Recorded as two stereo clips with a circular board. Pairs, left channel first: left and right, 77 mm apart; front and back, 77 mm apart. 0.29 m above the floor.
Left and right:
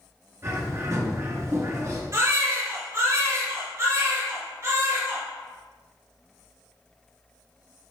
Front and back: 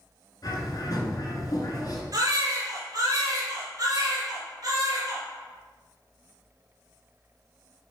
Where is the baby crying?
140° right, 3 m.